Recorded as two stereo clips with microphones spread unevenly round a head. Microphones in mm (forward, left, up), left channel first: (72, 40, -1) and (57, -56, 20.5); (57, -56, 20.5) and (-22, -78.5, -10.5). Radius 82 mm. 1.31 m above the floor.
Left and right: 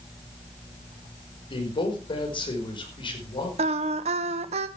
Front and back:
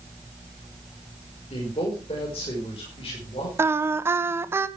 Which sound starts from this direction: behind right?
Singing, at 3.6 s.